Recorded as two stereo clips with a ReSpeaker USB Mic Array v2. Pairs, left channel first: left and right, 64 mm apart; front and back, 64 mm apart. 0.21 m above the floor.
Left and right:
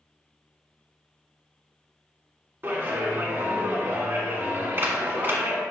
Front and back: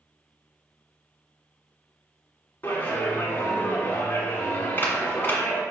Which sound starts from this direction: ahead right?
A clap, at 2.6 s.